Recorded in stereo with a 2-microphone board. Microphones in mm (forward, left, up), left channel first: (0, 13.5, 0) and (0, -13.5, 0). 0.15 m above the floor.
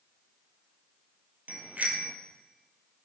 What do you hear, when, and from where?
1.5 s a bicycle bell: 65° right (ahead or behind), 2.5 m